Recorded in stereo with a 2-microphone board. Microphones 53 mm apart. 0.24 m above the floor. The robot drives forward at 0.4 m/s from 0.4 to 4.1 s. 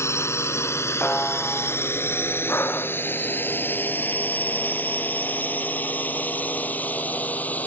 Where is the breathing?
50° left (ahead or behind).